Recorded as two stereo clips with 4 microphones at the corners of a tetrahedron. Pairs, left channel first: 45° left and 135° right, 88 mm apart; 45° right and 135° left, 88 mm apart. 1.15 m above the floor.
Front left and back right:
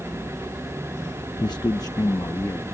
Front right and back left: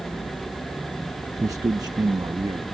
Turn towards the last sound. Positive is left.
turn(degrees=95)